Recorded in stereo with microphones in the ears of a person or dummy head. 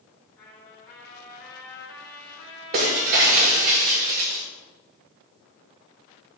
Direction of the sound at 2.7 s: 40° right (ahead or behind).